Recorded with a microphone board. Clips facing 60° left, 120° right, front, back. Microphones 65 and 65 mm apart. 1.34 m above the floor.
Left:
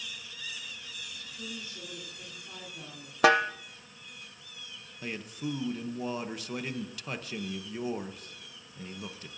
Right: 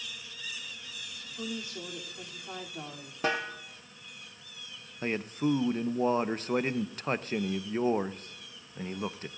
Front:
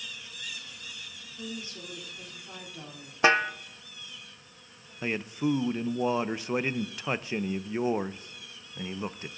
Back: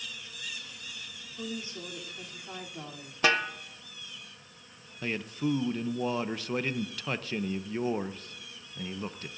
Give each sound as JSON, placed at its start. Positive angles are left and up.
{"t": 1.4, "sound": "a woman speaking", "azimuth_deg": -115, "distance_m": 3.0}
{"t": 3.2, "sound": "a snare drum", "azimuth_deg": 65, "distance_m": 0.6}
{"t": 5.0, "sound": "a man speaking", "azimuth_deg": -70, "distance_m": 0.6}